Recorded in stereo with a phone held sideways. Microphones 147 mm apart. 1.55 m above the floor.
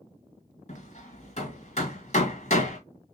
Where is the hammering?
50° left (ahead or behind), 1.9 m.